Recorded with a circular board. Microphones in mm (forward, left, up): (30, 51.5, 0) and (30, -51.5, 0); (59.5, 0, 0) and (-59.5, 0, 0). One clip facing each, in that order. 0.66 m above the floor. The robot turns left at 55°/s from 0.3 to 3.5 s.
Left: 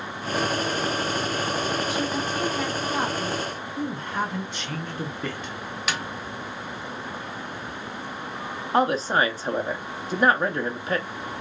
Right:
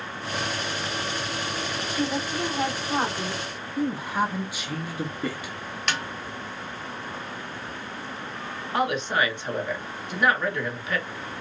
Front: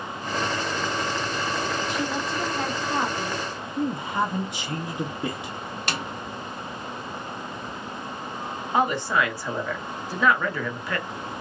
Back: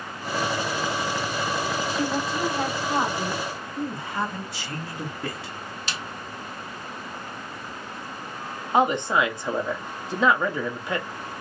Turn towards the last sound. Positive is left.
turn(degrees=120)